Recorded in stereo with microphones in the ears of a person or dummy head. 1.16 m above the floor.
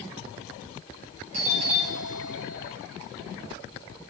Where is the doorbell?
35° right (ahead or behind), 1.5 m.